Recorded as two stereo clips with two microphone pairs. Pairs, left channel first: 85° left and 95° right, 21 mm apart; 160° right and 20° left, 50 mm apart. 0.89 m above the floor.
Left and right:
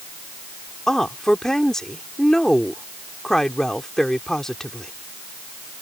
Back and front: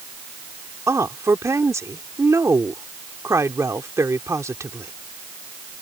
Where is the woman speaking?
20° left.